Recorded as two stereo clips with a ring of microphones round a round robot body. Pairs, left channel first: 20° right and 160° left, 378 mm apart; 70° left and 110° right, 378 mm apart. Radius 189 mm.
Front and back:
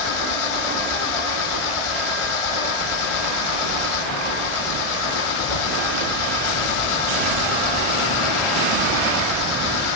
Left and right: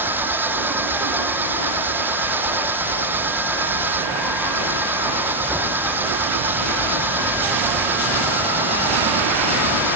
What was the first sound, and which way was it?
An engine running, 25° right.